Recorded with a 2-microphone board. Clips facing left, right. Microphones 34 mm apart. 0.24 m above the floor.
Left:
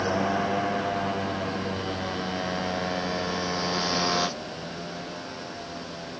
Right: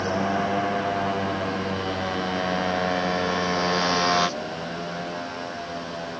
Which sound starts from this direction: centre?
A motorcycle, at 0.0 s.